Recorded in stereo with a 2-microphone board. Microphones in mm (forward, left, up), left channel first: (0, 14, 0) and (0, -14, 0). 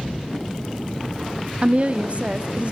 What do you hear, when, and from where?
1.6 s a woman speaking: 40° right (ahead or behind), 0.7 m